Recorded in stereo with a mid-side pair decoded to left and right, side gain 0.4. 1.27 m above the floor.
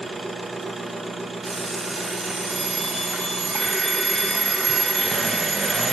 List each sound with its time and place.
0.0 s an engine running: 30° right, 0.8 m
1.4 s an alarm clock: 65° right, 1.8 m